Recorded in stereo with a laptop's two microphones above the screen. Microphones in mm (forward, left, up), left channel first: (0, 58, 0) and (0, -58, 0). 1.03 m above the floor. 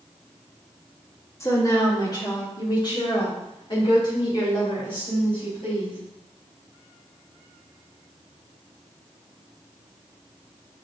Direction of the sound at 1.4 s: 25° left (ahead or behind).